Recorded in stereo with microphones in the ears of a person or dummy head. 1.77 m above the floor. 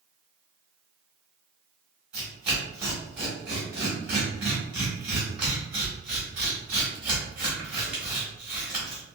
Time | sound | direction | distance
2.1 | tearing paper | 5° right (ahead or behind) | 1.1 m